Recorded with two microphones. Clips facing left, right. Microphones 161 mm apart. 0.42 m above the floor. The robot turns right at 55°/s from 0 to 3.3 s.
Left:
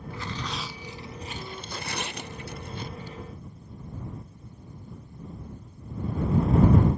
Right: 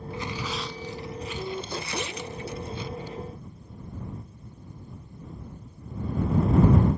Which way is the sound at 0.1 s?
25° right (ahead or behind).